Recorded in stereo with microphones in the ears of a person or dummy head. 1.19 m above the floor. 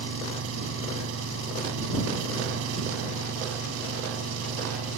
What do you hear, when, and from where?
0.0 s an engine running: 90° right